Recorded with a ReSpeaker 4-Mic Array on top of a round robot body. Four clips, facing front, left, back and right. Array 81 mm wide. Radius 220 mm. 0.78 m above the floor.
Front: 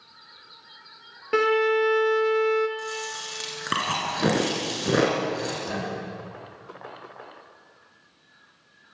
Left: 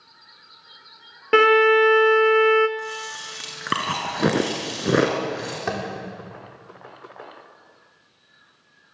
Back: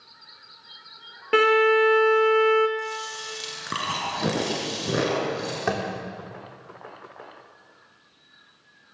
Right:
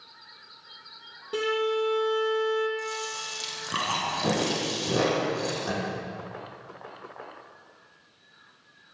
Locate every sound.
1.3 s a violin: 100° left, 0.7 m
2.8 s chewing: 75° left, 3 m
5.7 s tapping: 145° left, 3.5 m